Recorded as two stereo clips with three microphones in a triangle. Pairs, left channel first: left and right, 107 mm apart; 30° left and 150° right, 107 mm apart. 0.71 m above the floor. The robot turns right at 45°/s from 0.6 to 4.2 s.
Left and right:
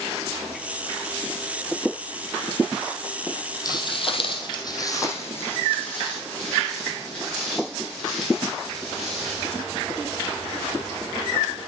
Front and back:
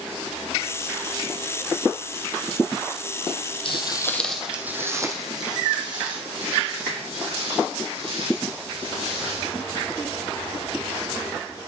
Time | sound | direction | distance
3.6 | footsteps | 45° left | 1.2 m